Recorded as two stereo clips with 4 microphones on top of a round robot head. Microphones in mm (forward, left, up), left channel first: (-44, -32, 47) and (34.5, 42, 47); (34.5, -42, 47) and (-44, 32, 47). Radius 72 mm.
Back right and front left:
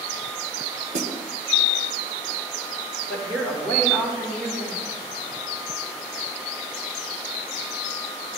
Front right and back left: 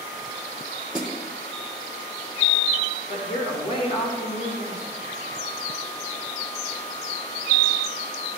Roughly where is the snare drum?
Ahead left.